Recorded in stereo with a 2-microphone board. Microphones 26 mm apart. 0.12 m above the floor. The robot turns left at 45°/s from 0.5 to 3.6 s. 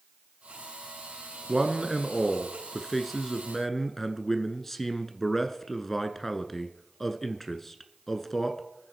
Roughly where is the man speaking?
Right.